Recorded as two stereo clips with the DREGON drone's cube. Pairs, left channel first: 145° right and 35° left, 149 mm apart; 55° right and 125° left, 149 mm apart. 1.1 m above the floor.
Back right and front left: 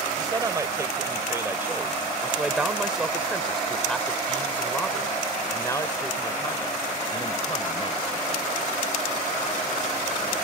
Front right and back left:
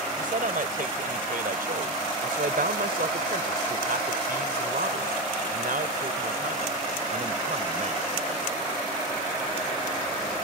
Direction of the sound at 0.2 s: 100° left.